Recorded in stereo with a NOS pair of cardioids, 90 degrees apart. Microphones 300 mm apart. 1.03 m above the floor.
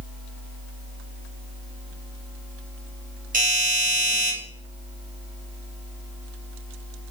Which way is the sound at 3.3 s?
30° right.